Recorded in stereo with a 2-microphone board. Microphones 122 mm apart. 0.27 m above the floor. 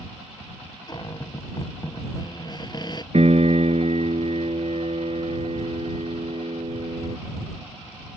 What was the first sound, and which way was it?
A cupboard door, 35° left (ahead or behind).